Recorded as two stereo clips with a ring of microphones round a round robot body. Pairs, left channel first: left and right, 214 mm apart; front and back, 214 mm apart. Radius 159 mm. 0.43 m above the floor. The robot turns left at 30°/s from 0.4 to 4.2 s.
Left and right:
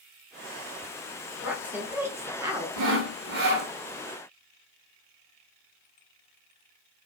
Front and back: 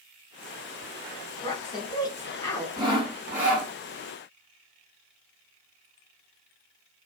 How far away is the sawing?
About 0.7 m.